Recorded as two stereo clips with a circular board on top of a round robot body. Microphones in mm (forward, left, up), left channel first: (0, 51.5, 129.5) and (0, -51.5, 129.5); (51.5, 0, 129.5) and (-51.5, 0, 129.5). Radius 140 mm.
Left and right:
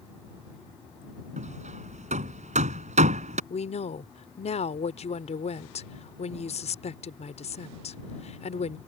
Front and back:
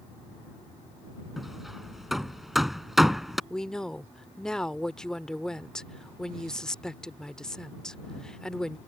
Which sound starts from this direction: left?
A woman speaking, at 3.5 s.